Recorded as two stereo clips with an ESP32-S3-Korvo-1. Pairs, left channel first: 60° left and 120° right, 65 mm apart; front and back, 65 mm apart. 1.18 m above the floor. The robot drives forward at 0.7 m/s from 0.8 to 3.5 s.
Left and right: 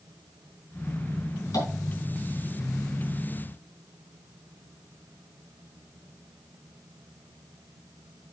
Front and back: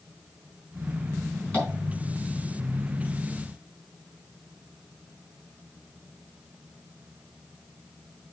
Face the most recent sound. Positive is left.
turn(degrees=90)